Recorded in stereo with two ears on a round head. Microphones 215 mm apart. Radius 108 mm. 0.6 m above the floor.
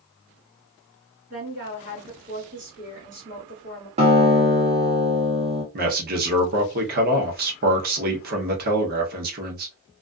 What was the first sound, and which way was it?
A woman speaking, 40° right (ahead or behind).